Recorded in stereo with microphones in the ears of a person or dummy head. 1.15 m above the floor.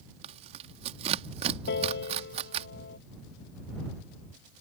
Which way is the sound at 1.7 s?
70° left (ahead or behind).